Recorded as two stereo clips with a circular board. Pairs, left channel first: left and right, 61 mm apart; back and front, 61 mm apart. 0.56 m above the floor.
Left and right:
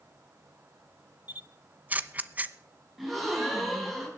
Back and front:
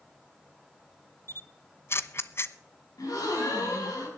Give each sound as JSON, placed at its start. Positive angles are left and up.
{"t": 1.3, "sound": "a camera shutter", "azimuth_deg": -145, "distance_m": 0.6}
{"t": 3.0, "sound": "a gasp", "azimuth_deg": -175, "distance_m": 5.0}